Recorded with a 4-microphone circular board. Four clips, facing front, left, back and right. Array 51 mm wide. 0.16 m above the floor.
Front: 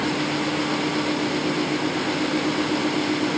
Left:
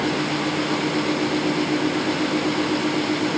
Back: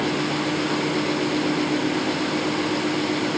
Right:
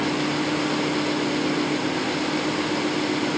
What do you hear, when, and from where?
Only background noise.